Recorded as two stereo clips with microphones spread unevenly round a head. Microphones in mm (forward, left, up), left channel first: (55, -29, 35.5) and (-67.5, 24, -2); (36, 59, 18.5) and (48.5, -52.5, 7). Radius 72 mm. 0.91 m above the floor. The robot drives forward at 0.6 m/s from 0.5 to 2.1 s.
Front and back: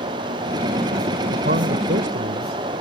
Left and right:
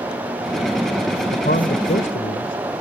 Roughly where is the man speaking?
Behind left.